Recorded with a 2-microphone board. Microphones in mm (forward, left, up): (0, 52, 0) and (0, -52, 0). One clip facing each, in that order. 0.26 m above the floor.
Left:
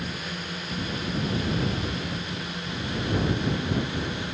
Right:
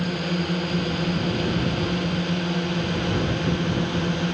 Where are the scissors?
I don't hear scissors.